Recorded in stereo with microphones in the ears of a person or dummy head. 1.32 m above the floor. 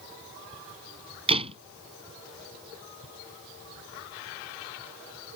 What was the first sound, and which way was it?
A door slam, 30° right (ahead or behind).